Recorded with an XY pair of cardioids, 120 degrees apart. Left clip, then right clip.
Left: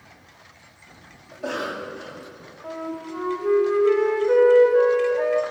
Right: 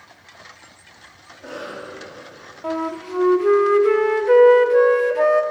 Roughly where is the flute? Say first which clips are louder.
Right 7 dB; ahead right.